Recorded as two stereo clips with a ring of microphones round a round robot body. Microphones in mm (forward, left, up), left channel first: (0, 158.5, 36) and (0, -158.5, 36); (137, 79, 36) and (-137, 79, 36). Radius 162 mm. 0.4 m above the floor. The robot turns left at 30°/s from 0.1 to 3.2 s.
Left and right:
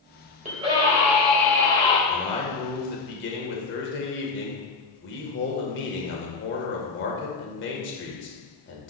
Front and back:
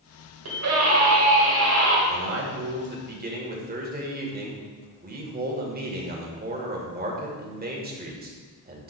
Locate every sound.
0.5 s a scream: 155° right, 2.5 m; by 2.0 s 160° left, 2.5 m
2.1 s a man speaking: 165° left, 1.8 m; by 8.9 s 135° left, 1.8 m